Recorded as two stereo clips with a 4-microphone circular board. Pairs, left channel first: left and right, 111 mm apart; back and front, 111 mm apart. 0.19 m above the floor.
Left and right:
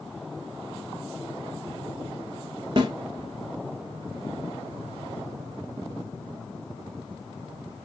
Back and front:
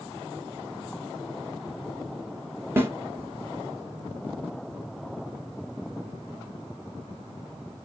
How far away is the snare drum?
About 0.8 m.